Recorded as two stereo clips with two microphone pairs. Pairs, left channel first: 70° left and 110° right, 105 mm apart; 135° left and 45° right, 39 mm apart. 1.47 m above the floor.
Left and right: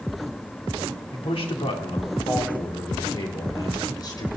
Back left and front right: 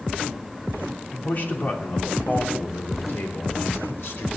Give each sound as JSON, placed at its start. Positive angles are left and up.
{"t": 1.1, "sound": "a man speaking", "azimuth_deg": 95, "distance_m": 3.5}